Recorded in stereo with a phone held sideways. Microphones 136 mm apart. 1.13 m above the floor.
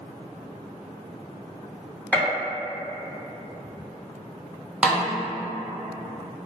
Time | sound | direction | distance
2.1 | a gunshot | 10° left (ahead or behind) | 0.9 m
4.8 | a snare drum | 10° right (ahead or behind) | 0.6 m